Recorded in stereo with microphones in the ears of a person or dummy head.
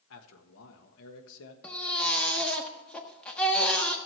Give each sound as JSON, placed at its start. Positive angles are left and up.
{"t": 0.1, "sound": "a man speaking", "side_deg": 75, "distance_m": 1.3}
{"t": 1.6, "sound": "a baby crying", "side_deg": 5, "distance_m": 1.4}